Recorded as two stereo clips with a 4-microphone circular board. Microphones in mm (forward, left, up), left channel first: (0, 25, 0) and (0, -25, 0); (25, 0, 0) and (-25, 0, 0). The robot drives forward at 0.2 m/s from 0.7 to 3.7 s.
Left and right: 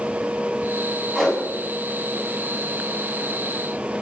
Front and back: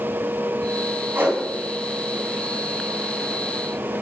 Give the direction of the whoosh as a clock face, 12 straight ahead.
6 o'clock.